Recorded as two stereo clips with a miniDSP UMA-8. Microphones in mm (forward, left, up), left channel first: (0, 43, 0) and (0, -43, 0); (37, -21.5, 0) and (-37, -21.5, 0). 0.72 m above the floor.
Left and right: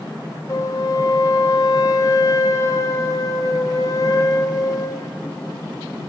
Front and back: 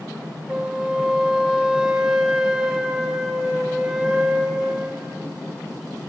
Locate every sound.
0.5 s a flute: 105° left, 1.1 m